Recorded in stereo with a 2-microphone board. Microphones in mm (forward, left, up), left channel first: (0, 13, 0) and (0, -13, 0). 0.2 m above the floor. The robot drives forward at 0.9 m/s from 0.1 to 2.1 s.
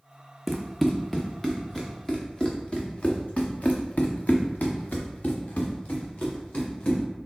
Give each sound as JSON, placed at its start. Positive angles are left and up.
{"t": 0.5, "sound": "running footsteps", "side_deg": 0, "distance_m": 0.8}